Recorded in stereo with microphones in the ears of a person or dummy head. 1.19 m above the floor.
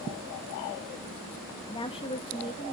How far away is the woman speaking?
About 1.5 m.